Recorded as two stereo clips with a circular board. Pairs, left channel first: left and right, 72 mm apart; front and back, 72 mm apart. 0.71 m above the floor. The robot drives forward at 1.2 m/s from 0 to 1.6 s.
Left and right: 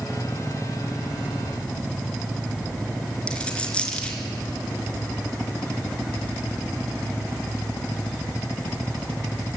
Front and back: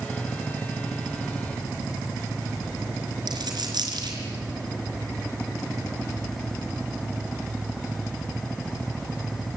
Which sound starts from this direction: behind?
A dropped coin, at 3.3 s.